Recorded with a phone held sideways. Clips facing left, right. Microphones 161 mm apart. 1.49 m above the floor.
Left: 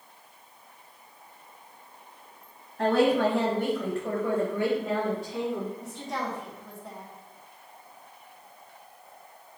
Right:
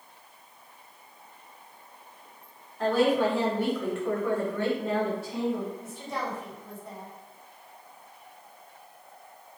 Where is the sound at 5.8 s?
80° left, 2 m.